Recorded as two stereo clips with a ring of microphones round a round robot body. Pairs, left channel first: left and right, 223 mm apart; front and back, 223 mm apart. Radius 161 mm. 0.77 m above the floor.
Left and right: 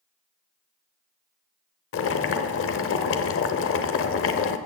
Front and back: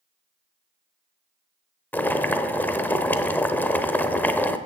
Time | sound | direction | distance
1.9 | boiling | 80° left | 0.8 m